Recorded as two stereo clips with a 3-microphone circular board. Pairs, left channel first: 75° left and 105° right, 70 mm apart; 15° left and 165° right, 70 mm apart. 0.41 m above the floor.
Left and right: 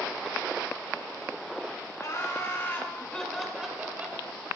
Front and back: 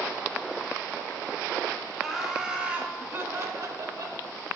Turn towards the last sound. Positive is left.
turn(degrees=-165)